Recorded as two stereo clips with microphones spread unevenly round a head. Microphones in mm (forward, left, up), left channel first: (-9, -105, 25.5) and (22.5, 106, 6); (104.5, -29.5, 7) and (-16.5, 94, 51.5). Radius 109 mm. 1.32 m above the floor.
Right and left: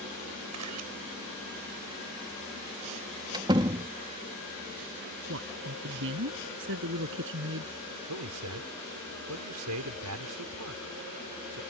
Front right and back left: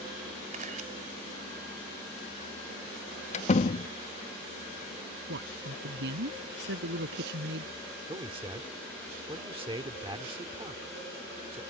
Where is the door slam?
10° left.